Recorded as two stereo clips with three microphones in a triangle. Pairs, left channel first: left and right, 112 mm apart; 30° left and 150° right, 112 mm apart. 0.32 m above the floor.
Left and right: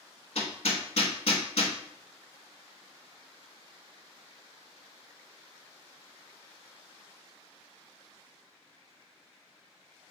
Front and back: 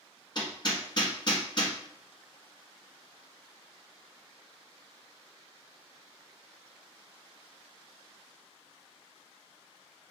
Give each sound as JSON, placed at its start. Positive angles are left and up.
{"t": 0.3, "sound": "hammering", "azimuth_deg": 75, "distance_m": 0.9}